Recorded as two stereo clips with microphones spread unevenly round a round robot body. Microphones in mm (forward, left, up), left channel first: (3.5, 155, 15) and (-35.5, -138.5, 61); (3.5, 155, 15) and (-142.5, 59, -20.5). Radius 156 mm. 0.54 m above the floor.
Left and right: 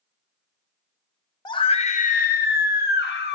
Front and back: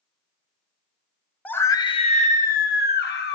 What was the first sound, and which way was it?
A scream, 130° left.